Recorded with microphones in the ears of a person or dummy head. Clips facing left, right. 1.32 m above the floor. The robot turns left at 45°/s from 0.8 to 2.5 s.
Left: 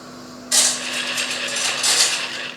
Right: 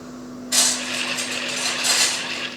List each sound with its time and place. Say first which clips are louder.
0.5 s cutlery clinking: left 1 dB; 70° left (ahead or behind), 1.9 m; by 2.5 s 35° left (ahead or behind), 1.9 m